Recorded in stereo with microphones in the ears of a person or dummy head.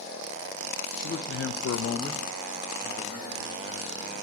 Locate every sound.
1.0 s a man speaking: 60° left (ahead or behind), 1.4 m; by 4.2 s 30° right (ahead or behind), 3.5 m